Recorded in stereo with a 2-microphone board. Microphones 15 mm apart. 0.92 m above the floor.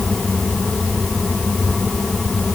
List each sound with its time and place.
Only background noise.